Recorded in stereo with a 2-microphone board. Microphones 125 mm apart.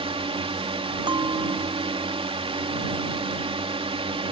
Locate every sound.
0.0 s a drone: 50° right (ahead or behind)
1.1 s a bell: 40° right (ahead or behind)